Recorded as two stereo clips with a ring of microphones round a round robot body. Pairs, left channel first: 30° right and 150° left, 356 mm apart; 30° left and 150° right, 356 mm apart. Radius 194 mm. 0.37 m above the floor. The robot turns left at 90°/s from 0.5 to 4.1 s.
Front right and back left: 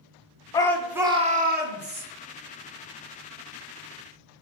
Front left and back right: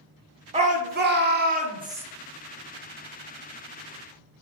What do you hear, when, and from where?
0.5 s a shout: 95° right, 0.8 m; by 2.0 s 130° left, 0.8 m